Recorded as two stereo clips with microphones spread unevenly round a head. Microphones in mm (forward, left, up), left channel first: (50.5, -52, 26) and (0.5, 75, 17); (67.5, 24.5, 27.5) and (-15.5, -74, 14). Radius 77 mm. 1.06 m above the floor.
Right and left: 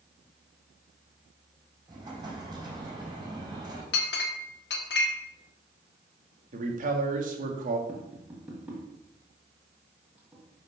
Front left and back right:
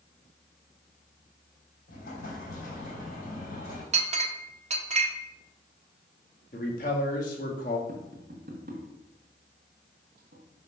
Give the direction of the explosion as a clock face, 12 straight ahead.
10 o'clock.